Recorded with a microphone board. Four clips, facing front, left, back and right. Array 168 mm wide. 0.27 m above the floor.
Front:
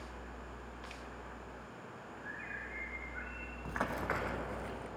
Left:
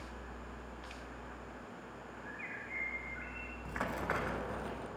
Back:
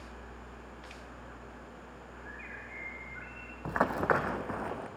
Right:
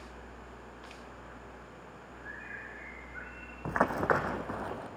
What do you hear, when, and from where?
2.2 s a bird: 65° right, 1.1 m
3.6 s running footsteps: 125° right, 0.9 m; by 4.9 s 145° right, 1.4 m